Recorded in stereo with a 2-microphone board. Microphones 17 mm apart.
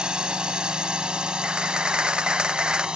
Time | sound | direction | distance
0.0 | a drone | 60° right (ahead or behind) | ?
1.4 | a camera shutter | 65° right (ahead or behind) | ?